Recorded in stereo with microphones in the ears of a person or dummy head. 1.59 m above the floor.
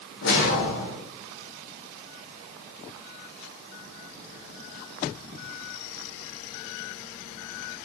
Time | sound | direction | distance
0.2 | a whoosh | 60° left (ahead or behind) | 0.7 m